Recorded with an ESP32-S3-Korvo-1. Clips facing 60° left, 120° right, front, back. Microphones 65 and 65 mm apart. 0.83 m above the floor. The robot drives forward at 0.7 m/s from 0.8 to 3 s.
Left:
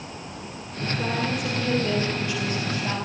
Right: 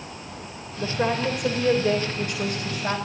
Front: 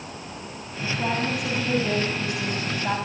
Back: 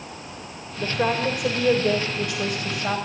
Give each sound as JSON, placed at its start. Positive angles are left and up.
{"t": 0.8, "sound": "a woman speaking", "azimuth_deg": -150, "distance_m": 3.5}